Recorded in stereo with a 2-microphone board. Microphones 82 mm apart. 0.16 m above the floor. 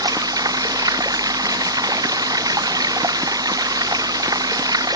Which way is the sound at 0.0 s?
50° right (ahead or behind).